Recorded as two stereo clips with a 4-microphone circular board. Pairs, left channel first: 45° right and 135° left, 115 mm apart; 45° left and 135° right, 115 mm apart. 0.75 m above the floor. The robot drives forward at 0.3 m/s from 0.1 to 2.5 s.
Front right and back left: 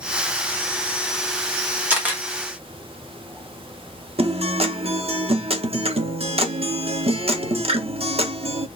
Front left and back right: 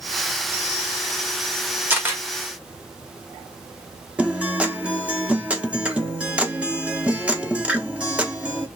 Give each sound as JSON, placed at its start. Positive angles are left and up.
{"t": 1.9, "sound": "a camera shutter", "azimuth_deg": -175, "distance_m": 1.0}
{"t": 4.2, "sound": "a guitar", "azimuth_deg": 150, "distance_m": 0.5}